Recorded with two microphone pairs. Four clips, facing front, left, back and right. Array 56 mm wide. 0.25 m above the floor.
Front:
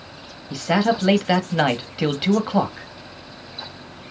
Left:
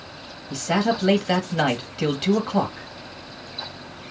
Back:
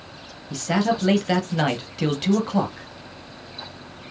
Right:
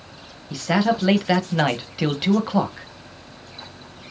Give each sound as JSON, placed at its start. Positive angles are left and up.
{"t": 0.5, "sound": "a man speaking", "azimuth_deg": -5, "distance_m": 1.2}